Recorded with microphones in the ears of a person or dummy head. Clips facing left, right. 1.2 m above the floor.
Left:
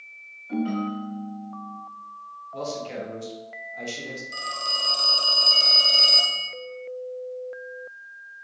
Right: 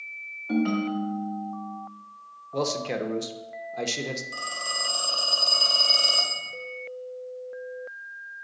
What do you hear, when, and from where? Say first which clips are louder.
0.5 s a ringtone: right 2 dB; 70° right (ahead or behind), 1.2 m
2.5 s a man speaking: right 4 dB; 75° right (ahead or behind), 0.8 m
4.3 s a phone ringing: left 1 dB; 30° left (ahead or behind), 1.1 m